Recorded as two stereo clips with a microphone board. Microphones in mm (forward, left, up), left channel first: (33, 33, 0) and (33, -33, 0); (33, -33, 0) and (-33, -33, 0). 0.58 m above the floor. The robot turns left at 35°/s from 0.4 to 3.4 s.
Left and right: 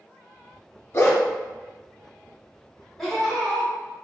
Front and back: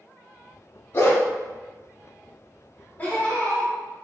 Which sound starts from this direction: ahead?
Laughter, at 3.0 s.